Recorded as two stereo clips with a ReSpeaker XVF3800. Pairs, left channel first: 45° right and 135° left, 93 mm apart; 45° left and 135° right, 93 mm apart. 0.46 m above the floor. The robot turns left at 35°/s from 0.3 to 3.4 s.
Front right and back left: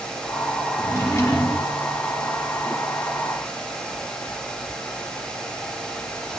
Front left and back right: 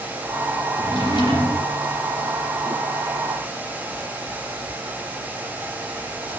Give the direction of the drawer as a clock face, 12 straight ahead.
11 o'clock.